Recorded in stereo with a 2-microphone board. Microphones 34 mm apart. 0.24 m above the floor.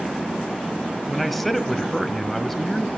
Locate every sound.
1.1 s a man speaking: 5° left (ahead or behind), 1.4 m